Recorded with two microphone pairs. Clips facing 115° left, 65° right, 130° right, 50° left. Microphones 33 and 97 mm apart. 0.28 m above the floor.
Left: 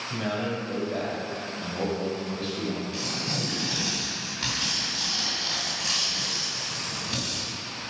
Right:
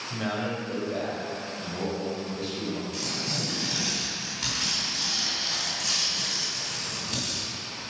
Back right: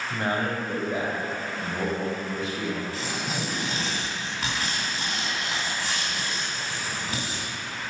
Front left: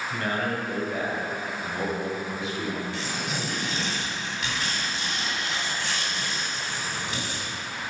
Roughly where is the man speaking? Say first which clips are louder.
Even, back right 2 dB; behind right.